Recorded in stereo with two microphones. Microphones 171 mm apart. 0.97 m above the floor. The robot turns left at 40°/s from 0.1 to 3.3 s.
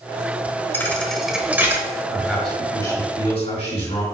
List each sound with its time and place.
0.7 s a thud: 15° left (ahead or behind), 0.9 m; by 1.8 s 15° right (ahead or behind), 0.9 m
2.1 s a man speaking: 170° right, 3 m; by 4.0 s 145° left, 3 m